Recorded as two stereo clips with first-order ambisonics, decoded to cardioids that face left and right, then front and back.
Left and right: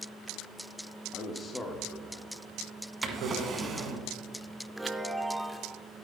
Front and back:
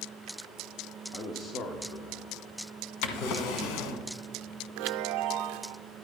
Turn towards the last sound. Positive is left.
turn(degrees=-175)